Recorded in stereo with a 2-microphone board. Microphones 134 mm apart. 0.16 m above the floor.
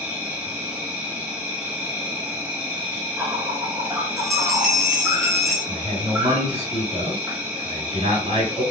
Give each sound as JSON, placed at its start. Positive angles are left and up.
{"t": 0.0, "sound": "an insect", "side_deg": -10, "distance_m": 1.3}
{"t": 4.2, "sound": "a bell", "side_deg": 0, "distance_m": 1.9}
{"t": 5.7, "sound": "a man speaking", "side_deg": -45, "distance_m": 2.0}